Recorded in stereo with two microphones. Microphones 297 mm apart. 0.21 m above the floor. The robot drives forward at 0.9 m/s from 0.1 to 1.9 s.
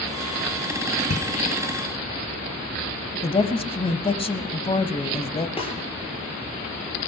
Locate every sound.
1.0 s a bicycle bell: 55° left (ahead or behind), 3.5 m; by 1.3 s 50° left (ahead or behind), 3.5 m
3.2 s a woman speaking: 20° left (ahead or behind), 0.9 m
5.6 s a snare drum: 20° left (ahead or behind), 6 m